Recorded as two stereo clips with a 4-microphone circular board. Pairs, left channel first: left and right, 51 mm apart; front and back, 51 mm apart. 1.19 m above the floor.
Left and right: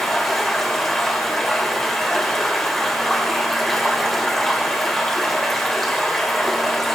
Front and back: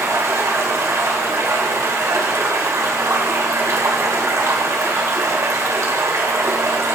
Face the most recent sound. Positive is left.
turn(degrees=175)